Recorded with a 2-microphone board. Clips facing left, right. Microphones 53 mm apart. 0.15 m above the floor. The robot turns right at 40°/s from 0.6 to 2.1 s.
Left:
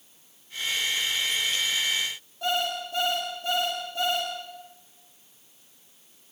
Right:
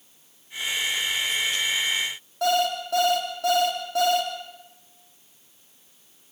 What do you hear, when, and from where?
2.4 s an alarm clock: 75° right (ahead or behind), 4.5 m